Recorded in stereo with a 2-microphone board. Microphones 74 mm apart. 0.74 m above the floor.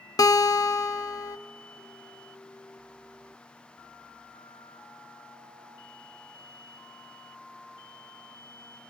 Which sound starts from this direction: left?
A guitar, at 0.2 s.